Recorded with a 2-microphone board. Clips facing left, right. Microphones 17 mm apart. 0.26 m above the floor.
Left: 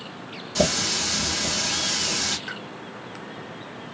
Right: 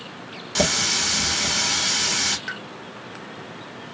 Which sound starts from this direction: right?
A running tap, at 0.6 s.